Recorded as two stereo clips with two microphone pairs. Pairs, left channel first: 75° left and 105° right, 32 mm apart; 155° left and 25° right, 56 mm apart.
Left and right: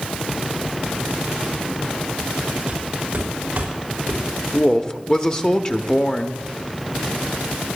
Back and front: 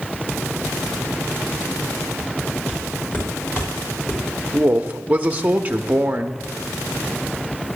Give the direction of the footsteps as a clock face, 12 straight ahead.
5 o'clock.